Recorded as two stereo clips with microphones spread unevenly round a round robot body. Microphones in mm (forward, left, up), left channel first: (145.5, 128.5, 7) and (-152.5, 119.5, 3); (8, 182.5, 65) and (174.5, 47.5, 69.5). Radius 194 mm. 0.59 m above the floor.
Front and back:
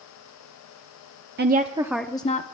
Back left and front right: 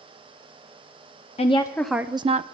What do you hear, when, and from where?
1.4 s a woman speaking: 170° left, 0.7 m; by 2.4 s 35° right, 0.7 m